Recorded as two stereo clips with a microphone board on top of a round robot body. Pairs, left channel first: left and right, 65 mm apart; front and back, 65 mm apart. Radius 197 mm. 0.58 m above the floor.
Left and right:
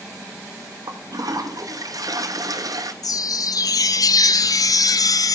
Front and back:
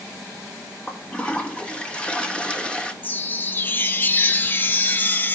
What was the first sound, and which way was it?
A toilet flushing, 75° right.